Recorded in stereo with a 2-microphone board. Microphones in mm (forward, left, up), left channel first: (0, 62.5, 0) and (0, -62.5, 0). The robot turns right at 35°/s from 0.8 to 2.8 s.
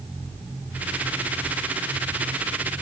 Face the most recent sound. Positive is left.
No sound to turn to.